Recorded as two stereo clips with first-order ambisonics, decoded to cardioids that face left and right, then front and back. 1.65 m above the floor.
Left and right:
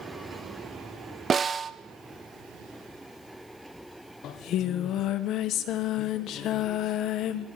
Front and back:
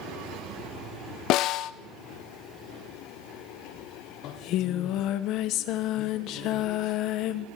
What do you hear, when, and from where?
1.3 s a snare drum: 25° right, 1.0 m
4.2 s singing: 40° left, 1.7 m